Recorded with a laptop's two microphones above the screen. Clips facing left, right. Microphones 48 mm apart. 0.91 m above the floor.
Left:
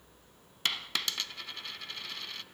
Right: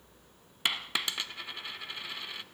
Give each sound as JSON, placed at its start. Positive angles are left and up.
{"t": 0.7, "sound": "a dropped coin", "side_deg": -15, "distance_m": 1.0}